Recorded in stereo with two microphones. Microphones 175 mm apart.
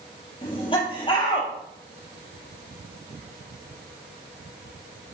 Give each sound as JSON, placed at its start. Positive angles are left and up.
{"t": 0.4, "sound": "laughter", "side_deg": 30, "distance_m": 3.0}